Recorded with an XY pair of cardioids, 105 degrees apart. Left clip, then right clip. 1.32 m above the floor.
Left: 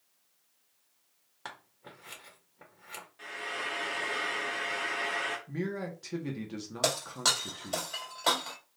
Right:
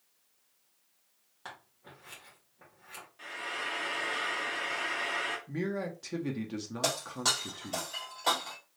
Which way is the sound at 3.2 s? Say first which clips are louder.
Even; 5° left.